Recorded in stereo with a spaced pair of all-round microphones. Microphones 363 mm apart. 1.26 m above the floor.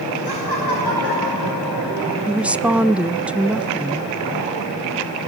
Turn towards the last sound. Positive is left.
turn(degrees=-5)  # may be behind; listen again after turning